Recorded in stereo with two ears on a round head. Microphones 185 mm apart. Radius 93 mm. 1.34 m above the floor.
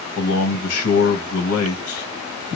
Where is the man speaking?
80° left, 1.4 m.